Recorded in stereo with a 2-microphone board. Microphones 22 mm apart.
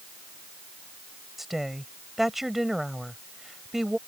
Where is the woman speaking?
10° right (ahead or behind).